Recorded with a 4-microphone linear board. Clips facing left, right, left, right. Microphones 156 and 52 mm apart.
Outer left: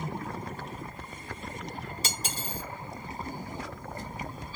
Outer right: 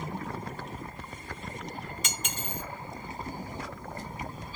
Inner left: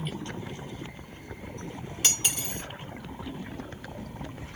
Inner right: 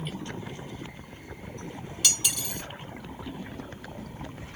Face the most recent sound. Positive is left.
turn(degrees=35)  # may be behind; listen again after turning